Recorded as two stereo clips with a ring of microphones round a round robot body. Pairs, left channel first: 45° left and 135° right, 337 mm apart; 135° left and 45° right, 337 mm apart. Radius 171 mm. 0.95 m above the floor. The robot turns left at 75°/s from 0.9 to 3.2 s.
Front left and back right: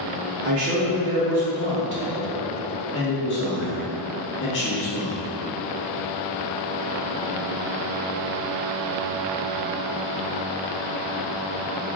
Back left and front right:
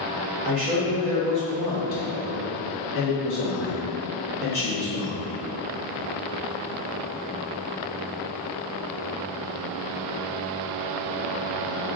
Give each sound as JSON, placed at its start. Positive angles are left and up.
{"t": 0.4, "sound": "a man speaking", "azimuth_deg": -85, "distance_m": 2.0}